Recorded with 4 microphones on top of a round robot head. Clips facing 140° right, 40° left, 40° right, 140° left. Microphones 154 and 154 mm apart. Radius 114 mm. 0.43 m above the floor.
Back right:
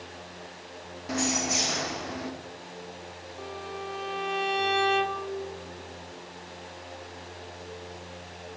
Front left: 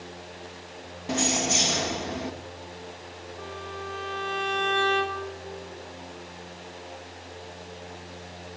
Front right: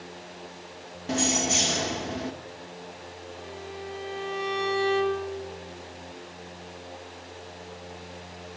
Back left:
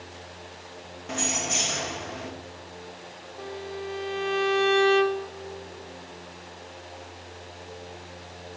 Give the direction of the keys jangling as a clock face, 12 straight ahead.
12 o'clock.